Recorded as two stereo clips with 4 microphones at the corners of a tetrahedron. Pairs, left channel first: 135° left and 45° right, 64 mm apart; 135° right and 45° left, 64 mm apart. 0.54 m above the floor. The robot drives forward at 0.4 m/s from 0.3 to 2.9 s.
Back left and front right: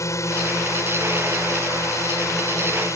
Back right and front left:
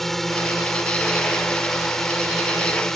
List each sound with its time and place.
0.0 s a drone: 140° left